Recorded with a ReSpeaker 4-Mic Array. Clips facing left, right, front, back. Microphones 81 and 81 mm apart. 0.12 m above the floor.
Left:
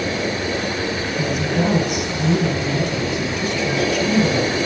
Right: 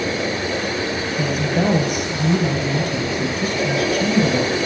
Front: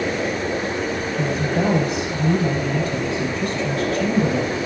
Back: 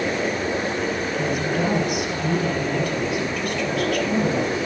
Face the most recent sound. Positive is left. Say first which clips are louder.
# right 1 dB, front 3 dB
turn(degrees=-60)